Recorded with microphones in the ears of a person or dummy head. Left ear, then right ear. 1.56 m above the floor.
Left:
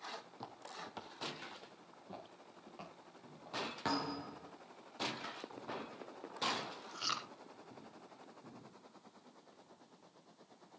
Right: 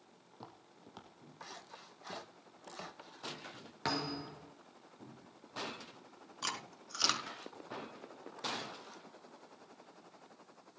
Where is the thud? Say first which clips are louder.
Right 4 dB; 25° right (ahead or behind), 4 m.